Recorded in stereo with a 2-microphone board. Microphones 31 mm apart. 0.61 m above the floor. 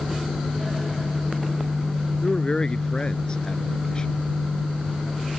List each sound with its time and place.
2.2 s a man speaking: 30° left (ahead or behind)